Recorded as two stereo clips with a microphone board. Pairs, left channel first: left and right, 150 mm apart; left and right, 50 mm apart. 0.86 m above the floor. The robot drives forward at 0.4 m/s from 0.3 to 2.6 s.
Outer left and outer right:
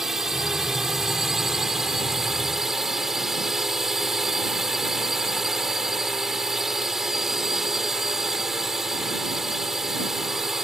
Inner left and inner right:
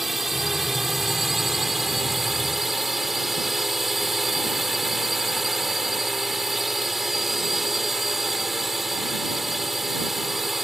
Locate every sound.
0.0 s a drone: 5° right (ahead or behind)